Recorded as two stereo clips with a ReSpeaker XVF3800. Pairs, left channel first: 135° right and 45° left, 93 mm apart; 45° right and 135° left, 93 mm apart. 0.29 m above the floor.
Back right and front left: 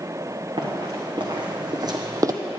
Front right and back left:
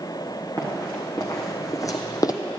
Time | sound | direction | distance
0.6 | running footsteps | 10° left | 1.8 m